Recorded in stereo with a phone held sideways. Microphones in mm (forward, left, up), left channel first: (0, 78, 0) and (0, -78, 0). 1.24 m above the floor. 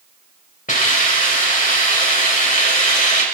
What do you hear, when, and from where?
0.7 s a hiss: 55° left (ahead or behind), 2.5 m